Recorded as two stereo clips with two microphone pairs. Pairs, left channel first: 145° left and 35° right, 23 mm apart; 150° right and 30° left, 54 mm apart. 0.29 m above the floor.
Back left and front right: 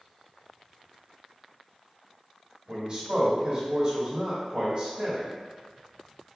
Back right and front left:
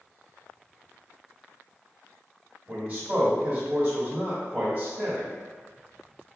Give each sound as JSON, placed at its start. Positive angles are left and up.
{"t": 2.7, "sound": "a man speaking", "azimuth_deg": 0, "distance_m": 1.0}